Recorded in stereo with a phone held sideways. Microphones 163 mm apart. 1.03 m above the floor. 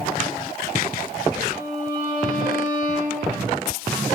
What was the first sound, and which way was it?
A violin, 70° left (ahead or behind).